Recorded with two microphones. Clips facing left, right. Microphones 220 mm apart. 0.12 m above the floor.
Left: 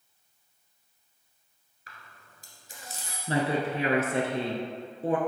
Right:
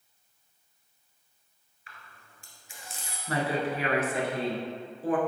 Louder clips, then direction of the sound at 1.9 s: Left 1 dB; 40° left (ahead or behind).